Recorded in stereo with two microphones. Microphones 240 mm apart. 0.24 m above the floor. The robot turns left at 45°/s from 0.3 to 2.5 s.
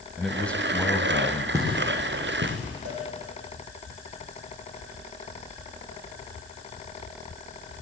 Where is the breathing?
No breathing in this recording.